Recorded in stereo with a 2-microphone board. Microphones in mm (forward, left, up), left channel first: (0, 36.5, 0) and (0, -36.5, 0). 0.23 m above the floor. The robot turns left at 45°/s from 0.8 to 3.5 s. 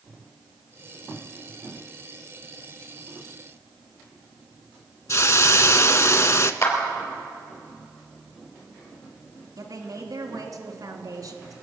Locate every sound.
5.1 s a hiss: 45° left (ahead or behind), 0.5 m
6.6 s a clap: 45° left (ahead or behind), 4 m
9.6 s a woman speaking: 50° right (ahead or behind), 2 m